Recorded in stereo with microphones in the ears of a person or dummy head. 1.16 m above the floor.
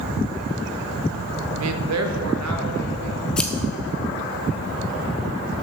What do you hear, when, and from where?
1.6 s a man speaking: 65° right (ahead or behind), 0.5 m; by 3.3 s 85° right, 1.9 m
3.4 s scissors: 5° left (ahead or behind), 0.7 m